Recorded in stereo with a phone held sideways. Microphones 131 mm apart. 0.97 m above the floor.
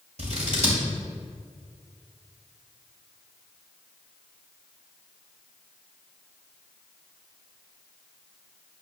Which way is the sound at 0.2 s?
60° right (ahead or behind).